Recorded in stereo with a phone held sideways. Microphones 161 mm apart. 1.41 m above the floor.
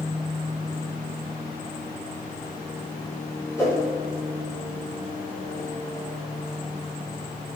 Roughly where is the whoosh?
Centre.